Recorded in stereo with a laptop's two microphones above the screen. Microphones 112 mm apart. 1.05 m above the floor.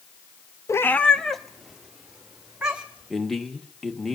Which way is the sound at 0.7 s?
25° left (ahead or behind).